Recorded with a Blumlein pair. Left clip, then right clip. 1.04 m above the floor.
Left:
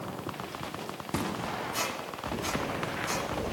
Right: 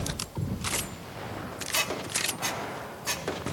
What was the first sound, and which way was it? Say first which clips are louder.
A squeak: right 4 dB; 35° right.